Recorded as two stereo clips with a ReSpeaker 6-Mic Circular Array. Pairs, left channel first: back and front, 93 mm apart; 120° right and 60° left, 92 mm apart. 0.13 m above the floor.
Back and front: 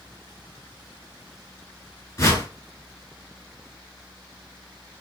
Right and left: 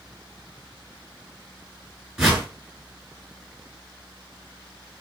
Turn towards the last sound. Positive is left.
turn(degrees=145)